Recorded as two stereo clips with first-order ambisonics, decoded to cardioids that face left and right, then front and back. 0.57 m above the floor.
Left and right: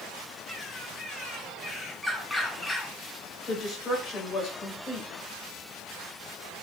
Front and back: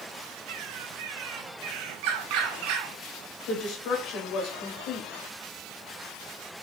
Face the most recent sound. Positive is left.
turn(degrees=25)